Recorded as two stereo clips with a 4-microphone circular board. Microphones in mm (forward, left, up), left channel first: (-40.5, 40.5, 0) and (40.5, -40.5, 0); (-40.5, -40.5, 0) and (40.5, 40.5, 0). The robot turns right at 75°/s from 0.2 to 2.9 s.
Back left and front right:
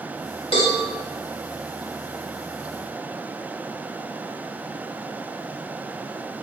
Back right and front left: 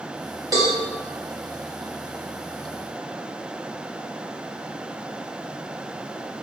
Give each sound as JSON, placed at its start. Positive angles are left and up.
{"t": 0.5, "sound": "a cowbell", "azimuth_deg": 100, "distance_m": 2.5}